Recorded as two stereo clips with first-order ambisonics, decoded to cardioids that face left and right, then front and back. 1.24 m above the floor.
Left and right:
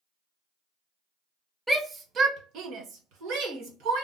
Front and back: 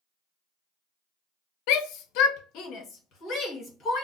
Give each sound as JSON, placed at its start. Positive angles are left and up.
{"t": 1.7, "sound": "a shout", "azimuth_deg": -5, "distance_m": 0.5}